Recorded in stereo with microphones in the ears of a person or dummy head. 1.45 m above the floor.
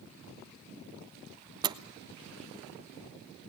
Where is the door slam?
15° right (ahead or behind), 0.7 m.